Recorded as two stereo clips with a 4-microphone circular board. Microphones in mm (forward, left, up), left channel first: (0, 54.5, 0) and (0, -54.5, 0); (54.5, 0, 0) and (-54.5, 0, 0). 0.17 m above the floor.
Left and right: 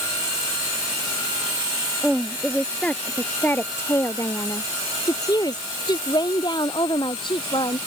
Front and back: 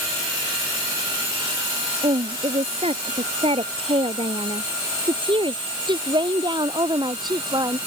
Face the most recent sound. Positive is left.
turn(degrees=130)